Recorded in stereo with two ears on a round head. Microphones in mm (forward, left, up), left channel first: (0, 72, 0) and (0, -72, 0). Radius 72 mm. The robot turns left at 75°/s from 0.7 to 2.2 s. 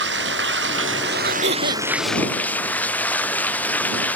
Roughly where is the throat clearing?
Right.